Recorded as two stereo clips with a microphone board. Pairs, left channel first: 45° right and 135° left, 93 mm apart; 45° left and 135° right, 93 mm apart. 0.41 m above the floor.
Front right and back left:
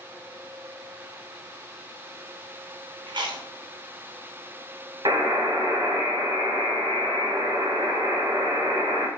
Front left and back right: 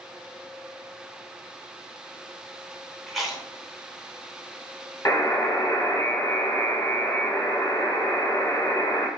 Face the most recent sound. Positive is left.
turn(degrees=105)